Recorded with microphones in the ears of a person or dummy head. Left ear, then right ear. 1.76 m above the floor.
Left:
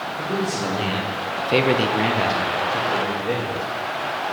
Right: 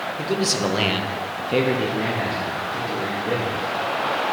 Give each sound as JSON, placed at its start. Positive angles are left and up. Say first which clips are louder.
{"t": 0.2, "sound": "a man speaking", "louder": "right 3 dB", "side_deg": -45, "distance_m": 1.2}